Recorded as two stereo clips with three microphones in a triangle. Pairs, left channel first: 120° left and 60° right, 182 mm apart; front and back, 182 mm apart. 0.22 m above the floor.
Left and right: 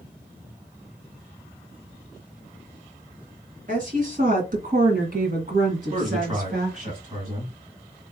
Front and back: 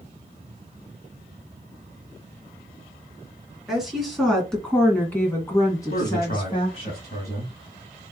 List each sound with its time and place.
3.7 s a woman speaking: 95° right, 2.5 m; by 6.9 s 40° right, 1.7 m
5.9 s a man speaking: 15° right, 2.5 m